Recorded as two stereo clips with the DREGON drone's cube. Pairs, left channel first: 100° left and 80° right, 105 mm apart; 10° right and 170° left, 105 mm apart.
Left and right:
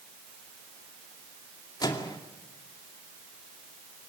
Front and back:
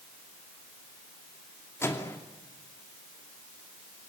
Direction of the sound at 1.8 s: 50° left.